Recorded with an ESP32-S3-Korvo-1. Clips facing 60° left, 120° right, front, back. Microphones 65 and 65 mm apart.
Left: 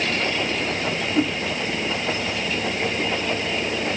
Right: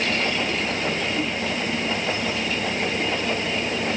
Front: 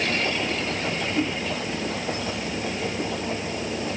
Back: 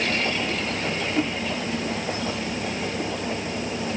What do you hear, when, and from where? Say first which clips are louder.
1.1 s a whoosh: left 5 dB, back 1 dB; 110° left, 2.0 m